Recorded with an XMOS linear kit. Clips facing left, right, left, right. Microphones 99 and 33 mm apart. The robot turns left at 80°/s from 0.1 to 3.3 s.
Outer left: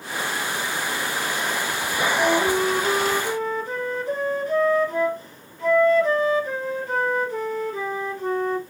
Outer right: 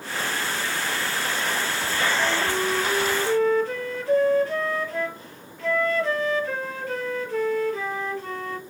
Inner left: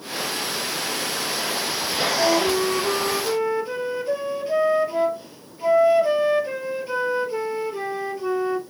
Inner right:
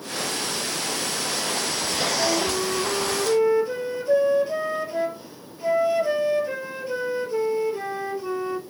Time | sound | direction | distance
2.2 | a flute | 110° left | 1.0 m